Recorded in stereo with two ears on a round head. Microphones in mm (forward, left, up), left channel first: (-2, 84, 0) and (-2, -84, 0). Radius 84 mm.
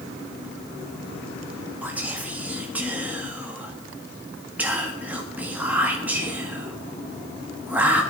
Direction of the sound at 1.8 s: 10° right (ahead or behind).